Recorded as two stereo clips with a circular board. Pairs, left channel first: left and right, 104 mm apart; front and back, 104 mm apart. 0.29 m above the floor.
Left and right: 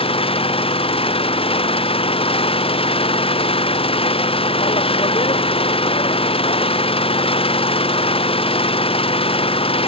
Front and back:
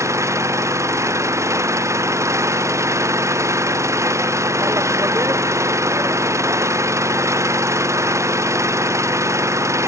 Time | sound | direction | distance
0.0 | an engine running | 120° left | ?